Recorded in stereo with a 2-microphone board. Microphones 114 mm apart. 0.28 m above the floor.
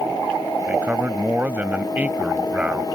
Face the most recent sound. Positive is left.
turn(degrees=-15)  # may be behind; listen again after turning